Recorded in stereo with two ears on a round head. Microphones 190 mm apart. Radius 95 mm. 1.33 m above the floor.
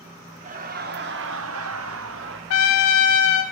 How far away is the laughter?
About 1.7 m.